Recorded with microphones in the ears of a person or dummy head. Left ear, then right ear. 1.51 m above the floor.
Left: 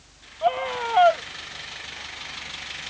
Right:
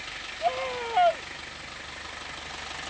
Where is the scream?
35° left (ahead or behind).